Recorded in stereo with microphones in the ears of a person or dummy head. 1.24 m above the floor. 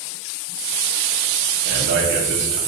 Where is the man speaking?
50° right (ahead or behind), 1.0 m.